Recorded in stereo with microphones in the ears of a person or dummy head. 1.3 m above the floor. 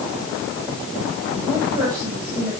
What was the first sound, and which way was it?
A woman speaking, 15° right (ahead or behind).